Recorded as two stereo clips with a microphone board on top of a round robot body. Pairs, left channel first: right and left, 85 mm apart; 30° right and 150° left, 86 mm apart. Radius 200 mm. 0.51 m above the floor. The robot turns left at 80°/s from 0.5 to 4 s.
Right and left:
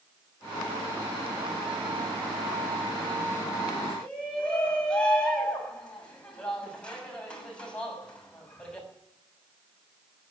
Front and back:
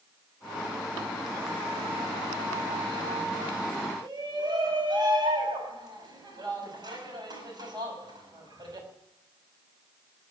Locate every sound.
4.0 s a shout: 170° right, 6 m